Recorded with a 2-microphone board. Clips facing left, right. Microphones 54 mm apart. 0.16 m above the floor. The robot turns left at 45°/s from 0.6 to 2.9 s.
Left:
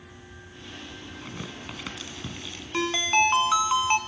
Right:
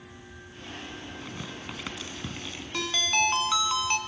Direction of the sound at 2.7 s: 20° left (ahead or behind).